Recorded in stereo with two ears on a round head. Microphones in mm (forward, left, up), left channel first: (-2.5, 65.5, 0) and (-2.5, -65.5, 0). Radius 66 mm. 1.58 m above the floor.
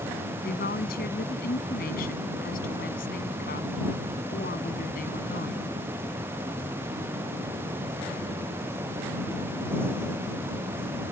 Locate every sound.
0.4 s a woman speaking: 70° left (ahead or behind); by 5.7 s 60° left (ahead or behind)